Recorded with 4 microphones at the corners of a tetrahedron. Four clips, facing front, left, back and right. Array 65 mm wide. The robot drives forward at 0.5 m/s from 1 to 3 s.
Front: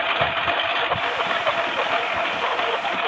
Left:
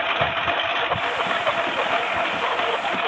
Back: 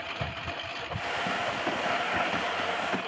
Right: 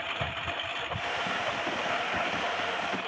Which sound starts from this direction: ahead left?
A lawn mower, at 0.0 s.